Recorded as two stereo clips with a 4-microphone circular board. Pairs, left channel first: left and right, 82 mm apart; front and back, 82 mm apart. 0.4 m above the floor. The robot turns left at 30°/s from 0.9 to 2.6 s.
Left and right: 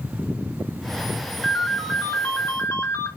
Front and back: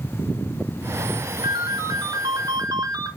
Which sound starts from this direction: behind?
A ringtone, at 1.4 s.